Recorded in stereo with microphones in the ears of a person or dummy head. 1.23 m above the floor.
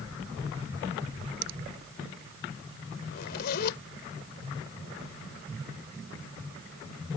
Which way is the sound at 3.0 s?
55° left (ahead or behind).